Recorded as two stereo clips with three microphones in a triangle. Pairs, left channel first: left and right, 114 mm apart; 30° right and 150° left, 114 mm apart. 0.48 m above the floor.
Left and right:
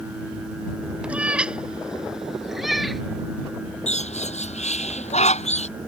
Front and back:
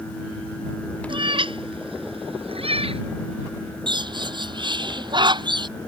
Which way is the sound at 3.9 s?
100° left.